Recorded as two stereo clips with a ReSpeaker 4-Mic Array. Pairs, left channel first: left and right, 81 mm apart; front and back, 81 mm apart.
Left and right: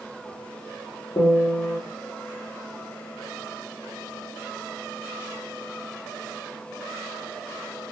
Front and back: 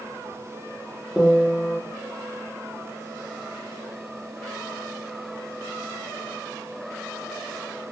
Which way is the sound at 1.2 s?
100° left.